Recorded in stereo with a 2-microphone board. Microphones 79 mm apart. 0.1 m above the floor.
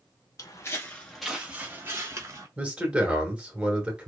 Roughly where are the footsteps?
Left.